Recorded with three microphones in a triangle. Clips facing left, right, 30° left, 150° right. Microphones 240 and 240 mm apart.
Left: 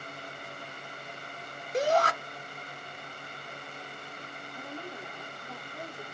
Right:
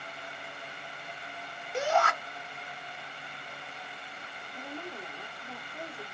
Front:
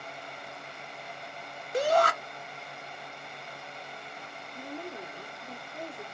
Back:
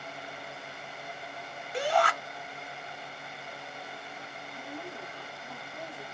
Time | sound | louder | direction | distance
1.7 | a shout | left 3 dB, front 3 dB | 55° left | 1.0 m
4.5 | a woman speaking | right 1 dB, front 3 dB | 5° left | 1.4 m